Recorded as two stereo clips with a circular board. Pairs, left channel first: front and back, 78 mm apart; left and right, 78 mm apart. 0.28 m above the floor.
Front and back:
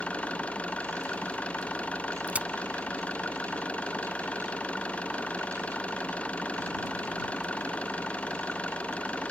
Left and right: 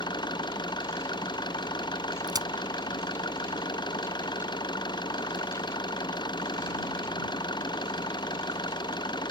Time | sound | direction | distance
0.0 | an engine running | 75° left | ?
2.3 | a crack | 110° right | ?